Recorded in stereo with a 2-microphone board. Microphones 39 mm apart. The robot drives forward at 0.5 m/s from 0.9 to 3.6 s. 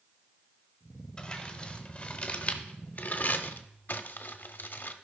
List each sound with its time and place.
1.2 s crumpling: 25° left (ahead or behind), 1.5 m; by 4.9 s 60° left (ahead or behind), 0.7 m